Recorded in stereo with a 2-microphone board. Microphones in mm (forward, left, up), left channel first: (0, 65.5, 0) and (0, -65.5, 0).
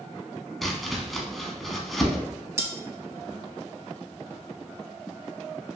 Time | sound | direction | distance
0.6 | chopping | centre (ahead or behind) | 0.6 m
2.6 | cutlery clinking | 20° right (ahead or behind) | 0.7 m